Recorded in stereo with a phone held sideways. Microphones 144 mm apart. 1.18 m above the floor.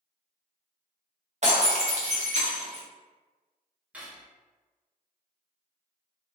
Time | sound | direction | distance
1.4 | breaking glass | 55° right (ahead or behind) | 0.7 m
3.9 | cutlery clinking | 10° right (ahead or behind) | 0.7 m